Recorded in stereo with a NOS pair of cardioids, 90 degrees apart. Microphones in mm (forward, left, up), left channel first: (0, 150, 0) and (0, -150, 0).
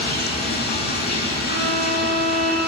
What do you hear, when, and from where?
0.0 s running water: 30° left, 6.5 m
1.5 s a violin: 45° right, 7.5 m